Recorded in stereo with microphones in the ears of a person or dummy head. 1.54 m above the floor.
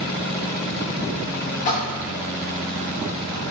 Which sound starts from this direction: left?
A splash, at 1.6 s.